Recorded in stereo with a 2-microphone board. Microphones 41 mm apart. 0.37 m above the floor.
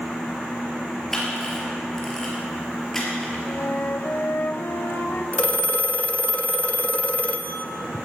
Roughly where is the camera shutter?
Centre.